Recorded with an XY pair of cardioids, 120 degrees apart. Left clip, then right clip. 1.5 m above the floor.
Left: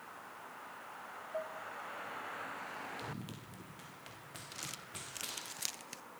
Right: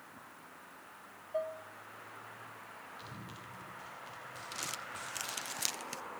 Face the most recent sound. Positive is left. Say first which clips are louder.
# right 5 dB
turn(degrees=-25)